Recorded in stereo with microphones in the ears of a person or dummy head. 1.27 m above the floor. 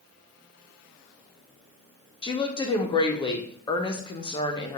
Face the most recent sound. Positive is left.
turn(degrees=20)  # may be behind; listen again after turning